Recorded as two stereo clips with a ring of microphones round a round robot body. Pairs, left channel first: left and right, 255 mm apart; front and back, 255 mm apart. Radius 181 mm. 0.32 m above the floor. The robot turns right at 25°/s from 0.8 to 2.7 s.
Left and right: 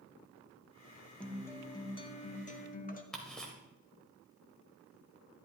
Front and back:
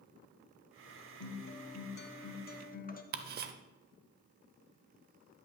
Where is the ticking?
175° left, 0.6 m.